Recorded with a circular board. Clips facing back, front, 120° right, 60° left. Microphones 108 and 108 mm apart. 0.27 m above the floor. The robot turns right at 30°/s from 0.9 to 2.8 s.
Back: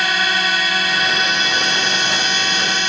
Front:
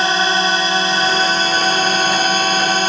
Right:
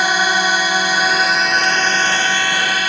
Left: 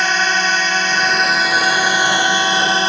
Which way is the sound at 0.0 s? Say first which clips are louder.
Front 4 dB, right 1 dB; 45° right.